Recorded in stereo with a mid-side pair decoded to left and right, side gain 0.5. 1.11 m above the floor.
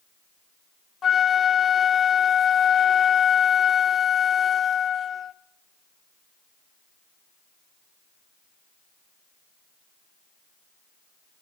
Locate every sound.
1.0 s a flute: 40° left, 0.7 m